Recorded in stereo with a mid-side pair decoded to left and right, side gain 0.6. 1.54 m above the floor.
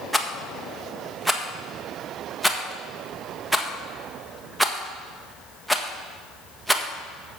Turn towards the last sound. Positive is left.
turn(degrees=-5)